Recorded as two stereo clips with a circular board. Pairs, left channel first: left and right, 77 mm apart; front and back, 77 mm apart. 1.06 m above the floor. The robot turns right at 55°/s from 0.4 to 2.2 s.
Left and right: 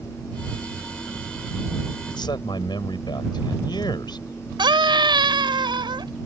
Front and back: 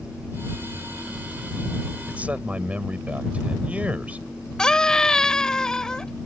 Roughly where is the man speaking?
Left.